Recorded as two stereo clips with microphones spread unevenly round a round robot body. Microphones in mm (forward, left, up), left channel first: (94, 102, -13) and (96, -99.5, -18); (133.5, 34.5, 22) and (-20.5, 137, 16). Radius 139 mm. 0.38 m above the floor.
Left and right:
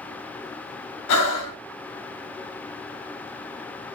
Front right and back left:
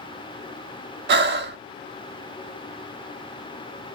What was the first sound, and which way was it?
Breathing, 115° left.